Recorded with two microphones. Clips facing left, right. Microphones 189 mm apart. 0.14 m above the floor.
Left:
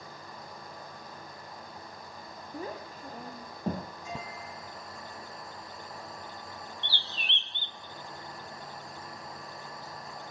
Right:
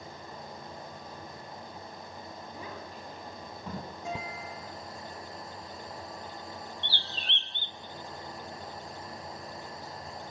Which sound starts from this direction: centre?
A bird, at 6.8 s.